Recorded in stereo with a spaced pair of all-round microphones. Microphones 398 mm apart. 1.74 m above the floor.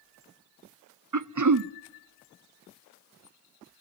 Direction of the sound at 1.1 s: 50° right (ahead or behind).